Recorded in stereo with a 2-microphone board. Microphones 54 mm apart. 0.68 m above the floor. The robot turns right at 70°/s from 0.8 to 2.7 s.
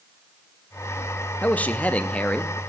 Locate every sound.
1.4 s a man speaking: 25° left (ahead or behind), 0.5 m; by 2.6 s 15° left (ahead or behind), 0.5 m